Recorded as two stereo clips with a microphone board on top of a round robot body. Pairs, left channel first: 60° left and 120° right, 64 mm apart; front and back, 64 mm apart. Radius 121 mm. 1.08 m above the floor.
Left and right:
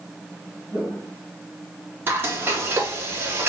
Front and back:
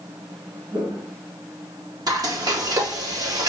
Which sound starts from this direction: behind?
Frying, at 2.1 s.